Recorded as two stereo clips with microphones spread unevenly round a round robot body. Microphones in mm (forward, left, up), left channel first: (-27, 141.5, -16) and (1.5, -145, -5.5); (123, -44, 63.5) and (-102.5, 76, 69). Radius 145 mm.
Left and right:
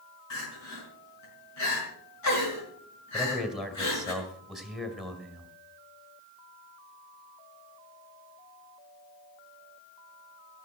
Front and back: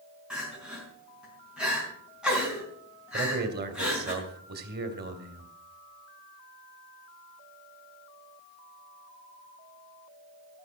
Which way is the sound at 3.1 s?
175° right.